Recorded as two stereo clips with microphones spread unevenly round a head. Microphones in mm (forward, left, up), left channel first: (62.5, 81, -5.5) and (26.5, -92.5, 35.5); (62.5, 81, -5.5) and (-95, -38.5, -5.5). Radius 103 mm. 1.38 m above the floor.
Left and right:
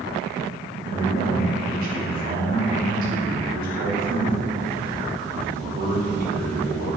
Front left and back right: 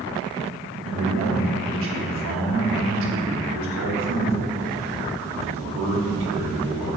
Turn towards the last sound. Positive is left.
turn(degrees=-155)